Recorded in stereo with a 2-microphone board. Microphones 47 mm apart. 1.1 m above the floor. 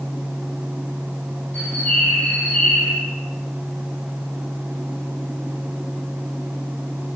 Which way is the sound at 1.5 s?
35° left (ahead or behind).